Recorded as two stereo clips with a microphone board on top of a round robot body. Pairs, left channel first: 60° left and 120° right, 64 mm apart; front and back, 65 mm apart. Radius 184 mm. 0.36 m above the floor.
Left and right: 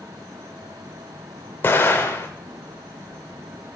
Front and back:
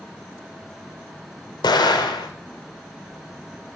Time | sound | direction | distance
1.6 | an explosion | straight ahead | 0.6 m